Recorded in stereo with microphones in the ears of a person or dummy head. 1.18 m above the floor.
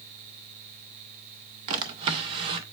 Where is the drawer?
30° right (ahead or behind), 0.5 m.